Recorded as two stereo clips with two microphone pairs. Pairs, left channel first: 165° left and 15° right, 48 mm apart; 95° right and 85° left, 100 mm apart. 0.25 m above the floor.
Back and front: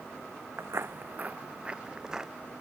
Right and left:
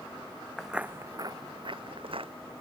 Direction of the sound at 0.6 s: 10° right.